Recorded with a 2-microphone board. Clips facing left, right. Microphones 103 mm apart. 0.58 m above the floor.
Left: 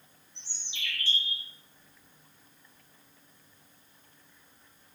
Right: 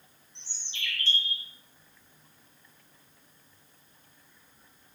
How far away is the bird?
About 1.0 m.